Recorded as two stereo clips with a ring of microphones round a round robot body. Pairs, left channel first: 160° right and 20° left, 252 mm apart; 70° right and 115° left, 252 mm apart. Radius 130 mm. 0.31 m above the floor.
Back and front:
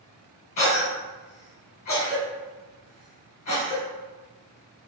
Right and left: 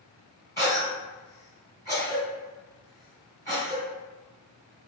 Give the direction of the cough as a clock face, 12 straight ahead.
4 o'clock.